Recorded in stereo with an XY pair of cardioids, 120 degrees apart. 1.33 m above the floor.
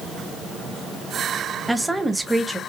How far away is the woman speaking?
About 1.1 m.